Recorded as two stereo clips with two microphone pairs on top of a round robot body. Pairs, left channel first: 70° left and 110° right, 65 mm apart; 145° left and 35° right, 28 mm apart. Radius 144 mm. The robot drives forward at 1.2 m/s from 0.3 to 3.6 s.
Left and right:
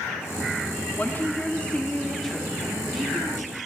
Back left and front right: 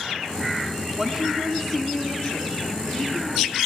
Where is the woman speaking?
15° left, 1.5 m; by 3.6 s 175° left, 2.5 m.